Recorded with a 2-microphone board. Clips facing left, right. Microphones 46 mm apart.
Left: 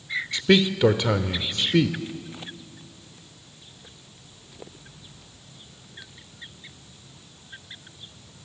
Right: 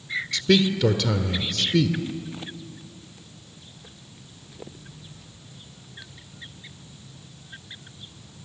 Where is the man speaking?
25° left (ahead or behind), 0.9 m.